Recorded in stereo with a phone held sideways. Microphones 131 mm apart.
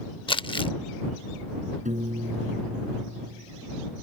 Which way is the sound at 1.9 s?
65° right (ahead or behind).